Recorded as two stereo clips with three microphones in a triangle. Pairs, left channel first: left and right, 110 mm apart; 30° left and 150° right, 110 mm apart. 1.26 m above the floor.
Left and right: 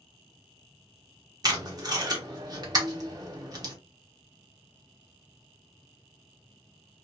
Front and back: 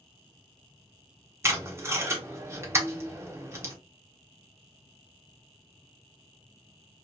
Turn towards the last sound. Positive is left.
turn(degrees=-100)